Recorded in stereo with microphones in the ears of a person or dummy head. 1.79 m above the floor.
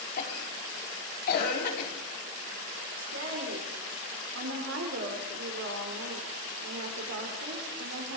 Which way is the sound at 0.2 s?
45° left (ahead or behind).